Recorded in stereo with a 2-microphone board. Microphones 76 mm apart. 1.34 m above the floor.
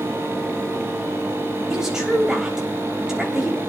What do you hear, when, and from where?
1.7 s a woman speaking: 10° right (ahead or behind), 3 m